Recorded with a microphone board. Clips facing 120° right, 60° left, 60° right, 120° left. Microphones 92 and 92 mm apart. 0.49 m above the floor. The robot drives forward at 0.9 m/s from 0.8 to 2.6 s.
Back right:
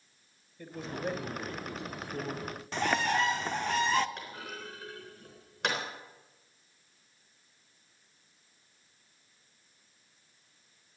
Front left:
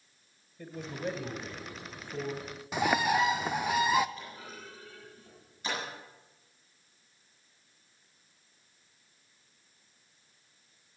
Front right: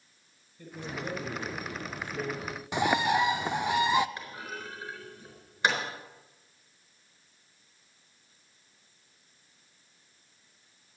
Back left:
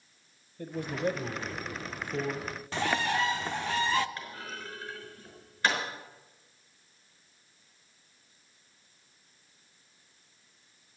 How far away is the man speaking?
About 2.5 m.